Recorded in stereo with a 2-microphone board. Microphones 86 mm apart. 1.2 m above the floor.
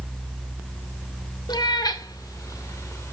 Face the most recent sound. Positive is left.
turn(degrees=35)  # may be behind; listen again after turning